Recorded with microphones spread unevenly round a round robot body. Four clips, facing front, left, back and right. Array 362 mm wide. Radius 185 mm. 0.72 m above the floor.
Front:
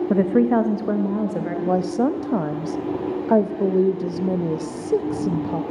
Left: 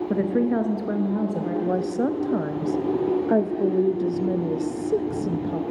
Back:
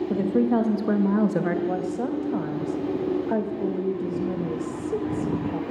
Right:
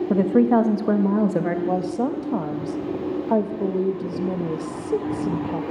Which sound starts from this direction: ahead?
A woman speaking, at 1.7 s.